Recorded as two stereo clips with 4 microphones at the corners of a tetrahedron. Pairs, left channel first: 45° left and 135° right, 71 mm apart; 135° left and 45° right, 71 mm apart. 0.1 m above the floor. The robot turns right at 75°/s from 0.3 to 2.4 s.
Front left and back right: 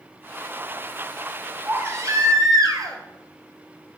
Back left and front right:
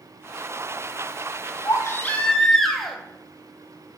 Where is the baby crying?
165° left, 0.8 m; by 3.0 s 140° right, 0.8 m.